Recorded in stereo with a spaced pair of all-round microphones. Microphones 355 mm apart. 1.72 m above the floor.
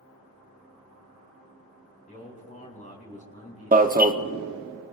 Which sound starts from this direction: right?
An alarm, at 3.7 s.